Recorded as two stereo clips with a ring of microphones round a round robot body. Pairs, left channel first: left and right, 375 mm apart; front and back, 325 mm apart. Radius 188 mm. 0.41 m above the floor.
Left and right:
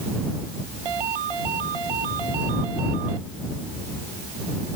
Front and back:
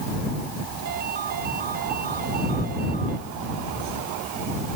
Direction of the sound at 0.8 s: 110° right.